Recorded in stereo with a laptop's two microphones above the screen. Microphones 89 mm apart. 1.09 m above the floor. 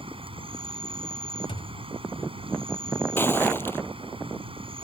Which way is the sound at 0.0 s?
85° right.